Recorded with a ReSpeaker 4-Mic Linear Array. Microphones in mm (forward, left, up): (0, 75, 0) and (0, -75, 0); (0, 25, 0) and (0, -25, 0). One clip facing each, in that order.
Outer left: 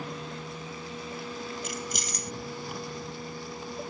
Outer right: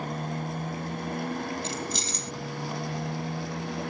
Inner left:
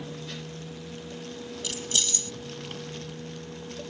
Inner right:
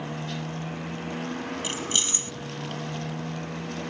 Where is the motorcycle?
50° right (ahead or behind); by 3.9 s 70° right (ahead or behind).